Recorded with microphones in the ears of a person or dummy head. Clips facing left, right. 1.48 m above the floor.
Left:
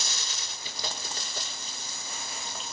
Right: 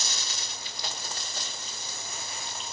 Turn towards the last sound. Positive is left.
turn(degrees=75)  # may be behind; listen again after turning